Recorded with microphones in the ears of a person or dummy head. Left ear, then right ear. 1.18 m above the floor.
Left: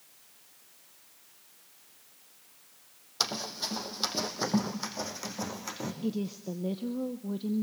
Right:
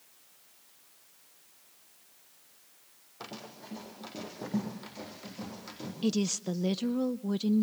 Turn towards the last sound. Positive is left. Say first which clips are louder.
# right 8 dB
turn(degrees=-60)  # may be behind; listen again after turning